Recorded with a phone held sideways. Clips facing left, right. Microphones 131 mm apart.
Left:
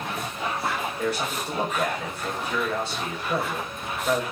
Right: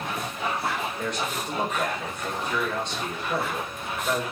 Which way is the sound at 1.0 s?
5° left (ahead or behind).